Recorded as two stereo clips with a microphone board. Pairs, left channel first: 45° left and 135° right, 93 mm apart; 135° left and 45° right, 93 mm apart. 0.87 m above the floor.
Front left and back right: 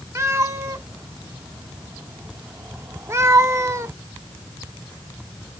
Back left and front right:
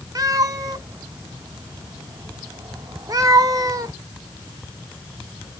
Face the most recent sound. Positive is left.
turn(degrees=-85)